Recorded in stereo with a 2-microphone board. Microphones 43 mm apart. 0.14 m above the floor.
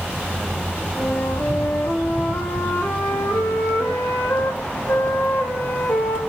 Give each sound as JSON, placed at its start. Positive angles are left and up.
{"t": 1.0, "sound": "a flute", "side_deg": 70, "distance_m": 2.0}